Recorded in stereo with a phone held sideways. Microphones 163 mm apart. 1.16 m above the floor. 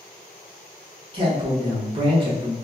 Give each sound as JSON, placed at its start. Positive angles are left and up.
{"t": 1.1, "sound": "a man speaking", "side_deg": -30, "distance_m": 1.1}